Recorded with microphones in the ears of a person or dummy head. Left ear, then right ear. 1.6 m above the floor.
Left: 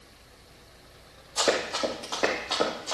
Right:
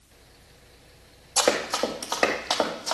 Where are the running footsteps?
55° right (ahead or behind), 3 m; by 2.9 s 65° right (ahead or behind), 4 m.